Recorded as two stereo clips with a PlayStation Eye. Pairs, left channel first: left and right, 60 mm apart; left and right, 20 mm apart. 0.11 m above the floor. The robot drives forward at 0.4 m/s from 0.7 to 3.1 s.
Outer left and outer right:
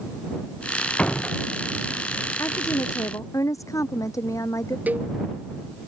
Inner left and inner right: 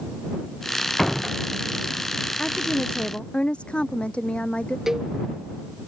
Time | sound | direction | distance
1.0 | a door slam | 20° left (ahead or behind) | ?
2.4 | a woman speaking | 65° left (ahead or behind) | ?
4.9 | a cowbell | 30° right (ahead or behind) | ?